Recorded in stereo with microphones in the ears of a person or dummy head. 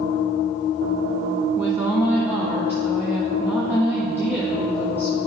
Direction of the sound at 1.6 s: 10° right (ahead or behind).